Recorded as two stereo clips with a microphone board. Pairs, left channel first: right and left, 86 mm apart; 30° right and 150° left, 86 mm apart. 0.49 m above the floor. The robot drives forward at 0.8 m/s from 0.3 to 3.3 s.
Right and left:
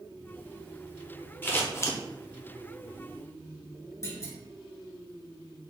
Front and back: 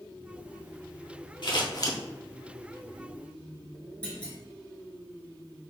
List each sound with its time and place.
1.4 s scissors: 25° right, 0.9 m; by 2.0 s 60° right, 0.6 m
4.0 s a clunk: 95° right, 1.1 m